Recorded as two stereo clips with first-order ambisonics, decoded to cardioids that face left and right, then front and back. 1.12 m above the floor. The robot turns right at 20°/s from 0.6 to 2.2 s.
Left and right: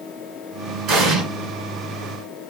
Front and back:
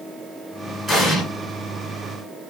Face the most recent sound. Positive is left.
turn(degrees=-75)